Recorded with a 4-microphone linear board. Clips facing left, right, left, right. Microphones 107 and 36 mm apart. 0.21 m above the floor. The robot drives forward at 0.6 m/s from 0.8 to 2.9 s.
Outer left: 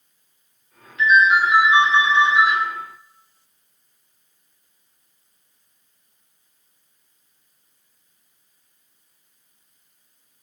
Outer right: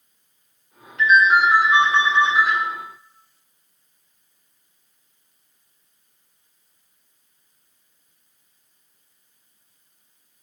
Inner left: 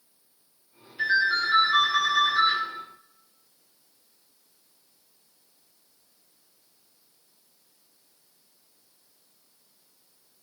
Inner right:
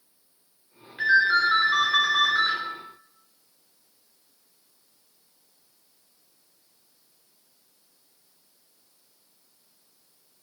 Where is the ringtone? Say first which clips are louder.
Even, inner right 4 dB; 45° right (ahead or behind), 1.1 m; by 2.5 s 50° right (ahead or behind), 1.1 m.